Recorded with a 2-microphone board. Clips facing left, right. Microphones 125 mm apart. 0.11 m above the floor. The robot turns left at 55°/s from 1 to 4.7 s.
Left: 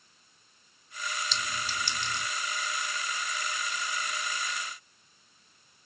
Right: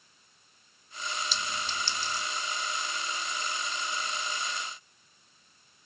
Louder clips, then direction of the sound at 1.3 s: Even; 5° right (ahead or behind).